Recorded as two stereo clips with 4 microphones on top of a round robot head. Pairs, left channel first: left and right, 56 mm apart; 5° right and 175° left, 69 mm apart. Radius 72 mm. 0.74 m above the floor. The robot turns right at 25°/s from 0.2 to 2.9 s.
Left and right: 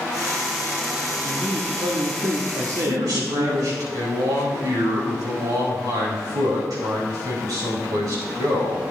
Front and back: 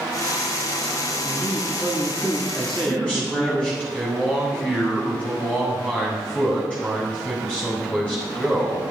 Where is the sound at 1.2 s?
120° right, 1.5 m; by 3.9 s 75° right, 1.5 m.